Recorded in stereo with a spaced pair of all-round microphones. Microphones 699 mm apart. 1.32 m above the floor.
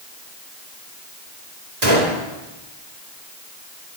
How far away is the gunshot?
About 3 m.